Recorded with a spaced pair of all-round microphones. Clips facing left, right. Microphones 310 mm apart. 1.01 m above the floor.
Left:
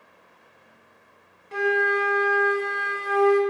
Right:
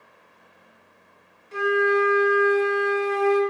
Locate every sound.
1.5 s a flute: 65° left (ahead or behind), 0.5 m